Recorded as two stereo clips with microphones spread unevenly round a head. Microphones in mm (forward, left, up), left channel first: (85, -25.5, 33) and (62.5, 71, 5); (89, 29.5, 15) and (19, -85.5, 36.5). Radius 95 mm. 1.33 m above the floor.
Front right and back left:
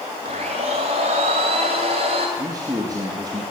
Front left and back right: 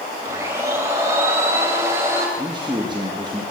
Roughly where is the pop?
I don't hear a pop.